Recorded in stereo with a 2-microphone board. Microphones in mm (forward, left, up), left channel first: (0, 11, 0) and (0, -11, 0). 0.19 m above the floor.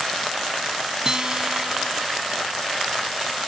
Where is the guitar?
35° right (ahead or behind).